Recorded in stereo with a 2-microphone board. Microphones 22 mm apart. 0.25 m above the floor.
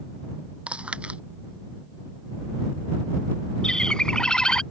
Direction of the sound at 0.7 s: 85° right.